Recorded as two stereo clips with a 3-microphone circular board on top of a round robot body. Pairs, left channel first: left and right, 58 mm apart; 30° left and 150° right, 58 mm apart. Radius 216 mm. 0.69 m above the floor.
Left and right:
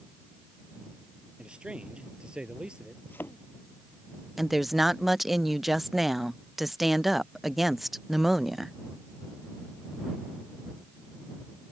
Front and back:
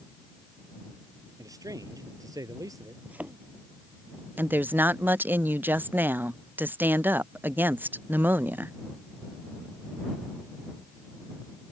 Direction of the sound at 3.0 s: 145° left.